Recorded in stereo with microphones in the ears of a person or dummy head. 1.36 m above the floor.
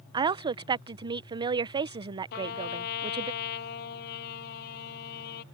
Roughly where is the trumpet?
Left.